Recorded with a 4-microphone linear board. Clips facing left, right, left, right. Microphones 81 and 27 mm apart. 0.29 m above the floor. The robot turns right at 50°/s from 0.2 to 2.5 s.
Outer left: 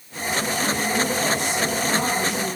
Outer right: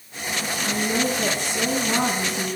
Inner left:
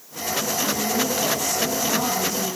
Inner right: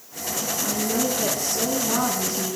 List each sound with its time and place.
0.7 s a woman speaking: 165° right, 3 m; by 2.6 s 70° right, 3 m